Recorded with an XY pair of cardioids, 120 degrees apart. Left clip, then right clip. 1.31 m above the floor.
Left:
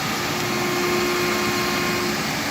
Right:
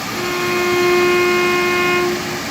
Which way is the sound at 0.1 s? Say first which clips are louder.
Right 5 dB; 50° right.